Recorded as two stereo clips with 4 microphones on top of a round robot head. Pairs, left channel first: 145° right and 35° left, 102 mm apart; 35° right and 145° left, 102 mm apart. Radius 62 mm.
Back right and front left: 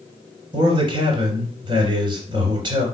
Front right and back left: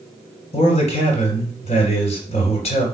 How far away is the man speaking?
About 3 m.